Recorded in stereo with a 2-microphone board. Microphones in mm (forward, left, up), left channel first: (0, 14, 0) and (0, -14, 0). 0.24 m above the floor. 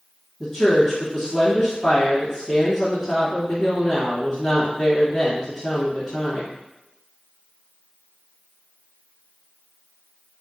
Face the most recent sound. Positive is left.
turn(degrees=10)  # may be behind; listen again after turning